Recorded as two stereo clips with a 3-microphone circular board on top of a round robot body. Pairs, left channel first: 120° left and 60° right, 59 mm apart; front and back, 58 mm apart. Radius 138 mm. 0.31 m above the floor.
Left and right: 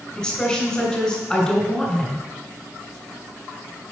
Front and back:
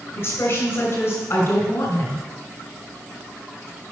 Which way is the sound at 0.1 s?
35° left.